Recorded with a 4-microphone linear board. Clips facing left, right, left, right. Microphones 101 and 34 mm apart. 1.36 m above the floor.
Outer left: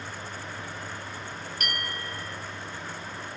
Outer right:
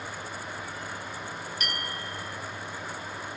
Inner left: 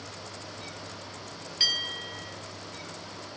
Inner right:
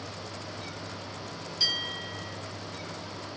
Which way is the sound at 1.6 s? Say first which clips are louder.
Outer left 3 dB, inner left 2 dB; 50° left (ahead or behind).